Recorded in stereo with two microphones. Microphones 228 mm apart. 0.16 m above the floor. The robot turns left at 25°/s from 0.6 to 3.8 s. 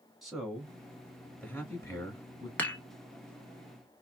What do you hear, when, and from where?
0.2 s a man speaking: centre (ahead or behind), 1.4 m; by 2.5 s 15° left (ahead or behind), 1.4 m
2.6 s dishes clattering: 5° left (ahead or behind), 1.0 m